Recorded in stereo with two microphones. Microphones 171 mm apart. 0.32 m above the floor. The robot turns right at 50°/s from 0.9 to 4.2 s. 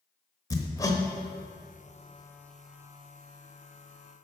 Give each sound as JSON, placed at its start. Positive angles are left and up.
{"t": 0.5, "sound": "hammering", "side_deg": 20, "distance_m": 1.1}